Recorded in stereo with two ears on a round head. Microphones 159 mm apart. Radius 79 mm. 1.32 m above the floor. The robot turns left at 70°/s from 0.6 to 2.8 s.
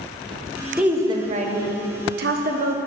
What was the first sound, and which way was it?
A woman speaking, 5° right.